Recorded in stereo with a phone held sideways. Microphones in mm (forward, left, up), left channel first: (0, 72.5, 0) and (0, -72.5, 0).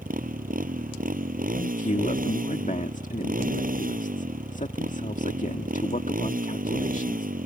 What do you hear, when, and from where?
0.0 s a motorcycle: 90° right
1.6 s a man speaking: 65° left (ahead or behind)